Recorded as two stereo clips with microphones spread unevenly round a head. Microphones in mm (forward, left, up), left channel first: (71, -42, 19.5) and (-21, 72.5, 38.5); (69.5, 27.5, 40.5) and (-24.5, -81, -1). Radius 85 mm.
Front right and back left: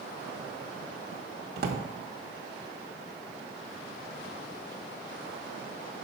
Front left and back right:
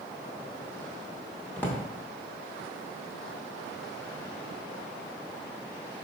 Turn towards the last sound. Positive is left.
turn(degrees=120)